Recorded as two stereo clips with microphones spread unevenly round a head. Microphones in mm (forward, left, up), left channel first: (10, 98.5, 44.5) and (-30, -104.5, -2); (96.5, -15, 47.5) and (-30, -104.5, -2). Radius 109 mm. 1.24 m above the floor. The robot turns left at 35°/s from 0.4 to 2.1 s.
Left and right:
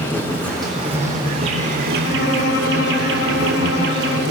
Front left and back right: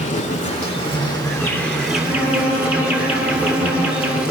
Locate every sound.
0.0 s an insect: straight ahead, 7.5 m; by 4.3 s 60° right, 7.5 m
2.0 s a violin: 105° left, 8 m